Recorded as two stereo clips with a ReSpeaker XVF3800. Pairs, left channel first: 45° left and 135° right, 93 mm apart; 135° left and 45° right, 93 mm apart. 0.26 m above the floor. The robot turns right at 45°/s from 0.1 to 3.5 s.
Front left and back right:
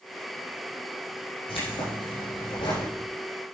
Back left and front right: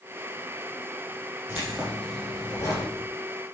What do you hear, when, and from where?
1.5 s keys jangling: 25° left, 6 m; by 2.9 s 85° left, 6 m